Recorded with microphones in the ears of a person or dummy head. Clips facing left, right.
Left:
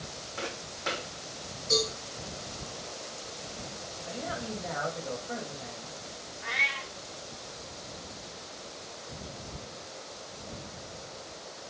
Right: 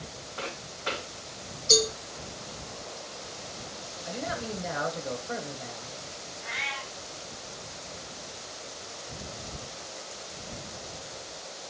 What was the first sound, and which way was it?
Footsteps, 65° left (ahead or behind).